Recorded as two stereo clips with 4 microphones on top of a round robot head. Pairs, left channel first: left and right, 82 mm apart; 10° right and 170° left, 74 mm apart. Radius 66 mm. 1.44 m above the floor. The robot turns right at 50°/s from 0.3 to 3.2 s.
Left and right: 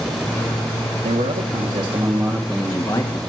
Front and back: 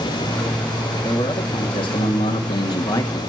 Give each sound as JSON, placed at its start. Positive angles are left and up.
{"t": 1.0, "sound": "a man speaking", "azimuth_deg": -80, "distance_m": 2.0}